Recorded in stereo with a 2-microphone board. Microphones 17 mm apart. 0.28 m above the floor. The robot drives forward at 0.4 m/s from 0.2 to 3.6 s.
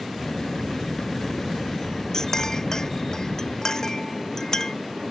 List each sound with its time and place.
2.1 s a clink: 40° left (ahead or behind)